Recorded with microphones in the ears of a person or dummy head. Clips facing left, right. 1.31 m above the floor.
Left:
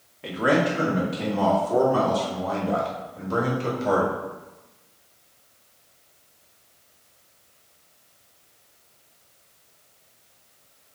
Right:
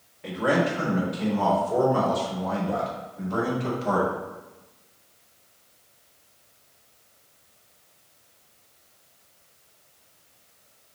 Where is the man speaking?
55° left (ahead or behind), 2.5 m; by 4.1 s 85° left, 4 m.